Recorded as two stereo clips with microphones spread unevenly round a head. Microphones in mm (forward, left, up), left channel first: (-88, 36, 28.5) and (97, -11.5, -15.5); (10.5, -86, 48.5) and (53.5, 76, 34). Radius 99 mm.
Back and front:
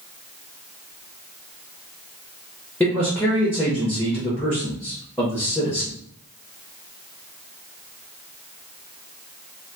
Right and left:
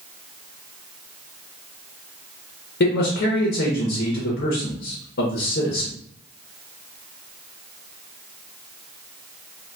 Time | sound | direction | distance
2.8 | a man speaking | 110° right | 0.9 m